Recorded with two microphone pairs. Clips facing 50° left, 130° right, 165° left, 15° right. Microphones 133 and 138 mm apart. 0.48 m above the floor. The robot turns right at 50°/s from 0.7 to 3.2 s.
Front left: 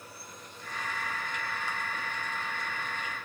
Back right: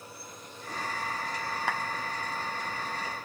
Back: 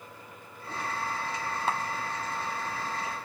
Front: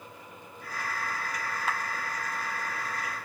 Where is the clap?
140° right; by 1.8 s 130° right.